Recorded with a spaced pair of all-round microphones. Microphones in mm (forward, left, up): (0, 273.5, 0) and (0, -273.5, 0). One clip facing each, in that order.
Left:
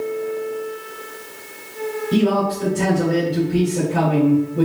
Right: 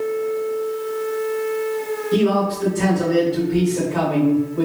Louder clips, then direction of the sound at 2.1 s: Even; 55° left (ahead or behind).